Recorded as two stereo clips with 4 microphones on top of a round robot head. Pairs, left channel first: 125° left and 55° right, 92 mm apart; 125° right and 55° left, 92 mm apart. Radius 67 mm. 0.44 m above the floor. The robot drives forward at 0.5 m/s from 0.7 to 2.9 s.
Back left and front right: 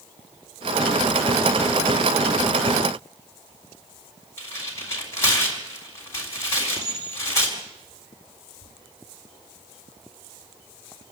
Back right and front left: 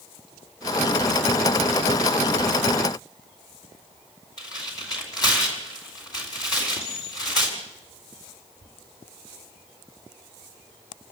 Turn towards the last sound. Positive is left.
turn(degrees=-165)